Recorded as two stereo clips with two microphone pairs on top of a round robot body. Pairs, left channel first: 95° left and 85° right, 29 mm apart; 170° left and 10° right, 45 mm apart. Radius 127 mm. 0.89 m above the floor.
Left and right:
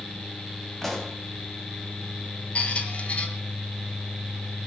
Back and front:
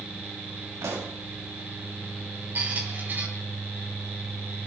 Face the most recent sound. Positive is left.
turn(degrees=45)